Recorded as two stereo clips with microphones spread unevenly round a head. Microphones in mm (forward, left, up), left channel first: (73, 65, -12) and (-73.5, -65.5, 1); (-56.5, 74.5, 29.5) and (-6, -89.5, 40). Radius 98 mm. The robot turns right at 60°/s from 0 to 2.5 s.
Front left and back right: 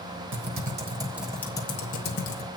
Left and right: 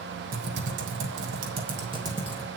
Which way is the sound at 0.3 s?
105° right.